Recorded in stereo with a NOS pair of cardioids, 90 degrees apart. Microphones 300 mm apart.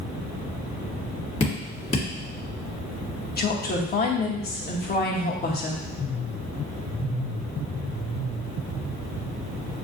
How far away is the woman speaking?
About 1.4 m.